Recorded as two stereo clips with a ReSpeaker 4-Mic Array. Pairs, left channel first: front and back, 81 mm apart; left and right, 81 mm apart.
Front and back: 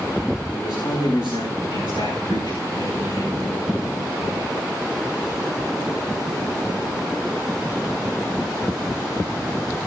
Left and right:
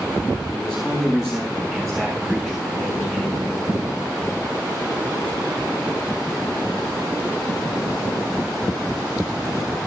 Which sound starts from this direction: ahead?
A man speaking, at 0.5 s.